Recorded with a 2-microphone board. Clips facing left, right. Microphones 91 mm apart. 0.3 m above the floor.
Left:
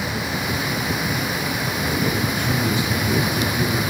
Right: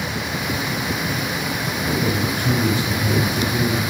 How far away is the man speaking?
About 1.3 m.